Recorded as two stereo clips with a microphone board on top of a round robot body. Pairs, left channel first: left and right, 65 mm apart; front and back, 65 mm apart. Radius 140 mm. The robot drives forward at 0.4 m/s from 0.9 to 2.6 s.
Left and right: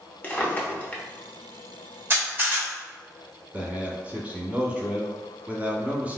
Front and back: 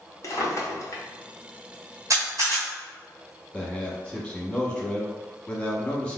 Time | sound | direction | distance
0.2 | a drawer | 30° left | 0.9 m
2.1 | a camera shutter | 150° right | 1.3 m
3.5 | a man speaking | 55° right | 1.0 m